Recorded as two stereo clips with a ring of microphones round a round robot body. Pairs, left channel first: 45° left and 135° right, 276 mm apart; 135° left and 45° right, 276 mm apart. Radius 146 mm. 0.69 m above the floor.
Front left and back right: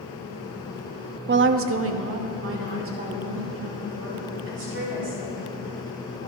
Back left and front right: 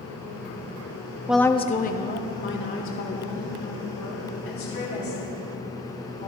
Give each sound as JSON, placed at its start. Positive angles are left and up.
{"t": 1.3, "sound": "a woman speaking", "azimuth_deg": -125, "distance_m": 0.5}